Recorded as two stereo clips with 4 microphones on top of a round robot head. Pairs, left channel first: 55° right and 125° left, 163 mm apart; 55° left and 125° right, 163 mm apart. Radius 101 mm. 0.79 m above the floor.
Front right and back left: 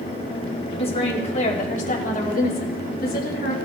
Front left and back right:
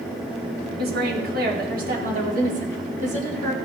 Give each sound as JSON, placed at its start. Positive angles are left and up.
{"t": 0.8, "sound": "a woman speaking", "azimuth_deg": -110, "distance_m": 2.5}